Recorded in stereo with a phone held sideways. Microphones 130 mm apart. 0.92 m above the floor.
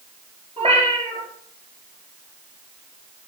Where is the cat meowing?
55° right (ahead or behind), 5 m.